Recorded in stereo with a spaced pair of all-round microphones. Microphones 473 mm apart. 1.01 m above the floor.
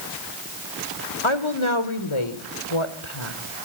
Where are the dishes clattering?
I don't hear dishes clattering.